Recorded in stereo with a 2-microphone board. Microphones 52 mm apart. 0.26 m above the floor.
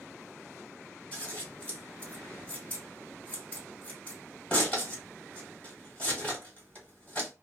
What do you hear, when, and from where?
1.1 s scissors: 20° left (ahead or behind), 1.7 m